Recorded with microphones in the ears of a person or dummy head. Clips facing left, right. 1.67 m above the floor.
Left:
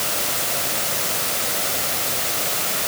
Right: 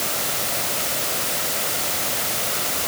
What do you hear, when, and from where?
Only background noise.